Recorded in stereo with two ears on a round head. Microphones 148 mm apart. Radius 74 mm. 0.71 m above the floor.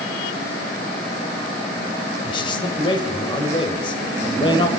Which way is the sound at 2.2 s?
30° left (ahead or behind).